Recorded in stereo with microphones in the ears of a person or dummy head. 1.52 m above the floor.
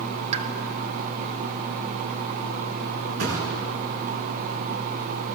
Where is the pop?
35° right (ahead or behind), 1.9 m.